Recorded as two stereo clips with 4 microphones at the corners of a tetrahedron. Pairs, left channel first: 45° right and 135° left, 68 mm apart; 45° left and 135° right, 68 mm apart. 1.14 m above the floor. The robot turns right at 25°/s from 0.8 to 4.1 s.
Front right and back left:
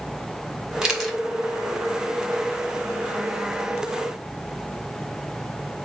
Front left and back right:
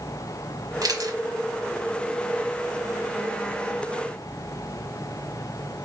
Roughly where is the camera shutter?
Behind right.